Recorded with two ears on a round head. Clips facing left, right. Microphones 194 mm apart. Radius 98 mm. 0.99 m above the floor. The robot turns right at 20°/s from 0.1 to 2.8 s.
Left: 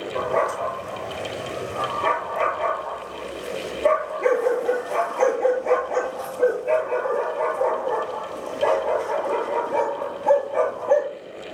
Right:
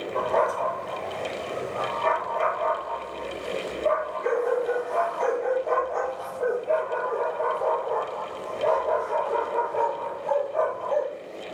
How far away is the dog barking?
About 7.5 m.